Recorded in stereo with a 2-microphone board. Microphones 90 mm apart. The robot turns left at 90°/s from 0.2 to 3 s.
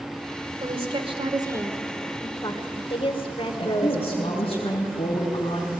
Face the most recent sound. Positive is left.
turn(degrees=70)  # may be behind; listen again after turning